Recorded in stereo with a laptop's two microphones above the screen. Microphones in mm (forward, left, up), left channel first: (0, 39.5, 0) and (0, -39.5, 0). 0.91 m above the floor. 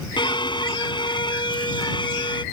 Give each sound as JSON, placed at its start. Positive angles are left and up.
{"t": 0.2, "sound": "a violin", "side_deg": 75}